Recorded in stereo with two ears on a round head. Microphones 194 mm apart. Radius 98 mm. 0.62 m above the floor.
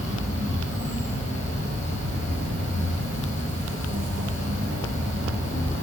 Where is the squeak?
I don't hear a squeak.